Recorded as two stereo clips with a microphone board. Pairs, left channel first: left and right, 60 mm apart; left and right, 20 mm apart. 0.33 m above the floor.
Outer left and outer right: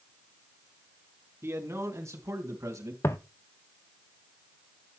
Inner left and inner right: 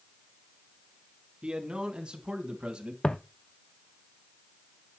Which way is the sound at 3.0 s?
55° left (ahead or behind).